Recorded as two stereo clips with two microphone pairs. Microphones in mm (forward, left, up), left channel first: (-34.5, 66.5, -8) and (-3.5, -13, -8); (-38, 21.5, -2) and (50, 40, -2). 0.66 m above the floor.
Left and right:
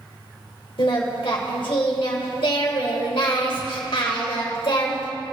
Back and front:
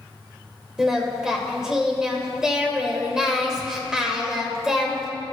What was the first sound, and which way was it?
Singing, 95° left.